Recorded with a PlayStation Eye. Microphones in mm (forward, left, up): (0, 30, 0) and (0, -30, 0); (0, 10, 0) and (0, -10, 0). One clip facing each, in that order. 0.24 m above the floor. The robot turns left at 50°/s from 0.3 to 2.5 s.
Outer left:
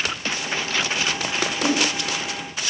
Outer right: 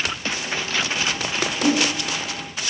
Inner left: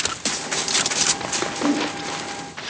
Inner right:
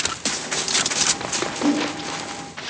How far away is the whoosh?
About 4 m.